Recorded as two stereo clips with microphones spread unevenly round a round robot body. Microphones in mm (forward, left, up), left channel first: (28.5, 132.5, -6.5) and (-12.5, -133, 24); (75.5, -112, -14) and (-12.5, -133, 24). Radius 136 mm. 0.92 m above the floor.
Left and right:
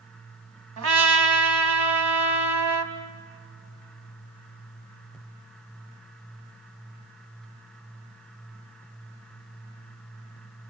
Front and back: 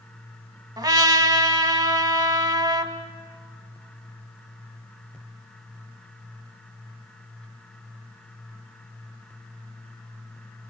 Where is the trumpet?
130° right, 2.5 m.